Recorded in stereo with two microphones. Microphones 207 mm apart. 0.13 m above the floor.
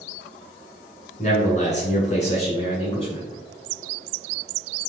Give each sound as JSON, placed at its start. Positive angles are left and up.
{"t": 1.2, "sound": "a man speaking", "side_deg": 35, "distance_m": 1.4}